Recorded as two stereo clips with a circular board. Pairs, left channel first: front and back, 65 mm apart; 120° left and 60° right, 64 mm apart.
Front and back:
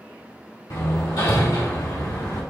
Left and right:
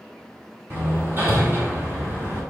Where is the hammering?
10° right, 2.5 m.